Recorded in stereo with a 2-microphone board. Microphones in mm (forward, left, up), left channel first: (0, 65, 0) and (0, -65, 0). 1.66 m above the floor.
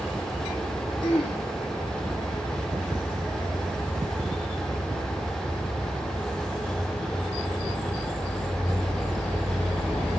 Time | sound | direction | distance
1.0 | throat clearing | 40° left (ahead or behind) | 0.9 m